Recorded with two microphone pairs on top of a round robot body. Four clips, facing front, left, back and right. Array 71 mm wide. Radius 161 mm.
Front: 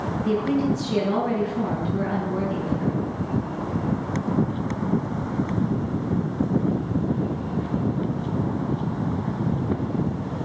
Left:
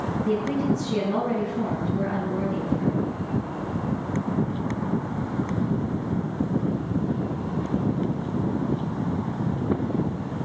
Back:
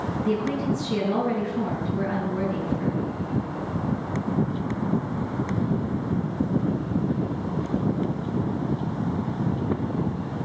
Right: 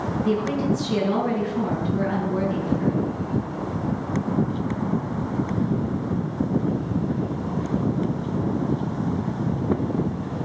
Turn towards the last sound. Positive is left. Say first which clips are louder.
# right 1 dB, front 3 dB
turn(degrees=-55)